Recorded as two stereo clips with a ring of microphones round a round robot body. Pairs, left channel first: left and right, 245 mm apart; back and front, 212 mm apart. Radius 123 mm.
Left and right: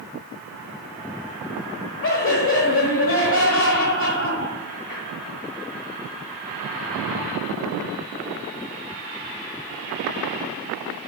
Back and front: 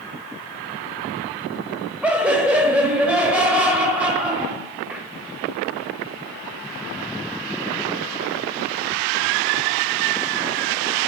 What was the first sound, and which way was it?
Laughter, 80° left.